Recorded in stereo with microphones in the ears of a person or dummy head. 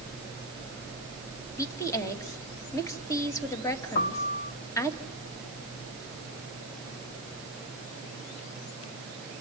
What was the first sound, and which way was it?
A woman speaking, 15° left (ahead or behind).